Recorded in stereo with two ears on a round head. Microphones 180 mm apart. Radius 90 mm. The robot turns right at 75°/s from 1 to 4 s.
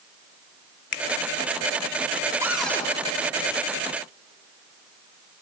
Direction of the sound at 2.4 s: 15° right.